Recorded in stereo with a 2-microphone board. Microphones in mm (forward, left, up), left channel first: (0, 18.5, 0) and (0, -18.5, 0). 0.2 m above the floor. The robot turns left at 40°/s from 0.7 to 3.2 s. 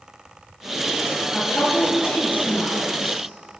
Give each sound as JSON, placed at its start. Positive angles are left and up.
{"t": 1.3, "sound": "a woman speaking", "side_deg": 65, "distance_m": 3.5}